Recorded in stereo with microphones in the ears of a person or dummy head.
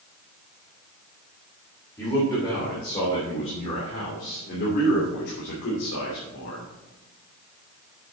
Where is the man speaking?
10° left (ahead or behind), 3.5 m; by 6.7 s 70° left (ahead or behind), 3 m.